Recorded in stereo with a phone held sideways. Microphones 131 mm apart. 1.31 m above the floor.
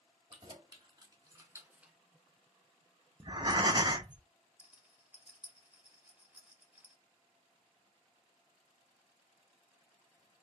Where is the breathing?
35° right (ahead or behind), 0.5 m.